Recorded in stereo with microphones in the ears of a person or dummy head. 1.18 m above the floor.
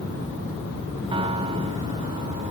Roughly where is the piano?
Right.